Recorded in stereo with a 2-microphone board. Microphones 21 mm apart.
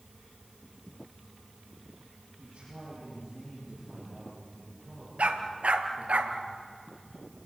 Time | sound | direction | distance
2.4 | a man speaking | 50° right (ahead or behind) | 10 m
5.2 | a dog barking | 85° right | 1.9 m